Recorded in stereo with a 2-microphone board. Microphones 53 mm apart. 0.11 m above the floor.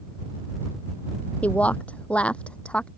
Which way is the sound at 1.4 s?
30° left (ahead or behind).